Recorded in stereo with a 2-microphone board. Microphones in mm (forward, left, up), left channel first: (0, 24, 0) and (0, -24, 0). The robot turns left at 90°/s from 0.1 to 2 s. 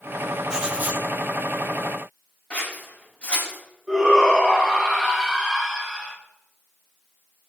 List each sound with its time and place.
0.5 s writing: 10° right, 3.5 m; by 1.0 s 60° right, 3.5 m
2.5 s scissors: 25° left (ahead or behind), 6.5 m
3.9 s a shout: 5° right (ahead or behind), 6.5 m